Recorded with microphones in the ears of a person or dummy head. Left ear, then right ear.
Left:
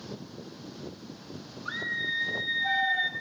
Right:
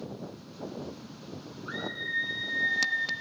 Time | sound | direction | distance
1.6 | a scream | 40° left (ahead or behind) | 1.6 m